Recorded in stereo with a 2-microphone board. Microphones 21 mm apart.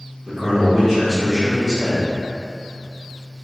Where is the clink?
No clink in this recording.